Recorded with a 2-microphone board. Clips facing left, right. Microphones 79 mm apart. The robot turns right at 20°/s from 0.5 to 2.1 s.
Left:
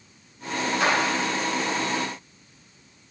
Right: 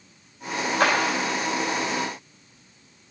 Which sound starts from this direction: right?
A clap, at 0.8 s.